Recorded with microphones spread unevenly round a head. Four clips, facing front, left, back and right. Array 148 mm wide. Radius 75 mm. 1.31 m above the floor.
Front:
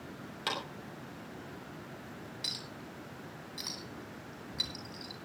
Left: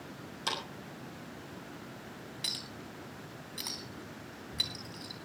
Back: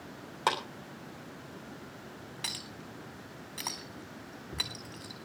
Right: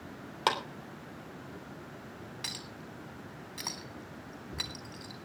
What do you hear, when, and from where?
0.5 s a clap: 120° right, 3.5 m
2.4 s a clink: 165° right, 3.5 m